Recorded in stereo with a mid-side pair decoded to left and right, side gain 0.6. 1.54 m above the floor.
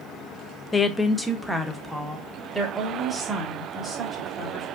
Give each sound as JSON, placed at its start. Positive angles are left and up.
{"t": 0.7, "sound": "a woman speaking", "azimuth_deg": 25, "distance_m": 0.6}